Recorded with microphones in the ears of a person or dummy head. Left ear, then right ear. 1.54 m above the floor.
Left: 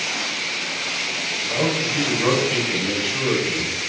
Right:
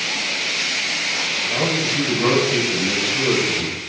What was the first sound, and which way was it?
A man speaking, 15° left (ahead or behind).